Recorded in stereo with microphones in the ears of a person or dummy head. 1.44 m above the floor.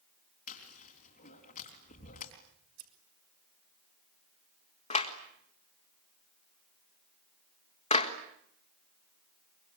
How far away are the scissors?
About 4.5 m.